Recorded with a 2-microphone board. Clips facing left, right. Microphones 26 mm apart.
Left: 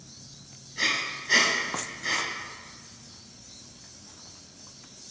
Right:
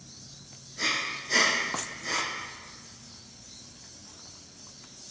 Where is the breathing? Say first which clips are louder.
Left 2 dB; 30° left (ahead or behind), 1.1 m.